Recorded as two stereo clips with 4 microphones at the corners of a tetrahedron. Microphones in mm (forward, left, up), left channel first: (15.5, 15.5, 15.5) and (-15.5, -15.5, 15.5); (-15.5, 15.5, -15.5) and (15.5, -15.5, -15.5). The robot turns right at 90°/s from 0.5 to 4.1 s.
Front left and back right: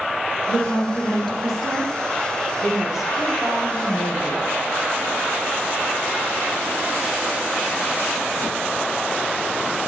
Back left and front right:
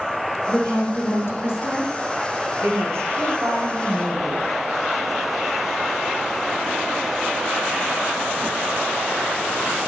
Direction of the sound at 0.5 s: 60° left.